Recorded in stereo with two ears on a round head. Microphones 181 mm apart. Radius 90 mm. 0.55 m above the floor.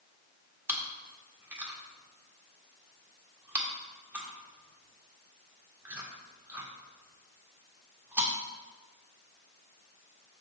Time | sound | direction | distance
0.7 | chewing | 10° right (ahead or behind) | 1.6 m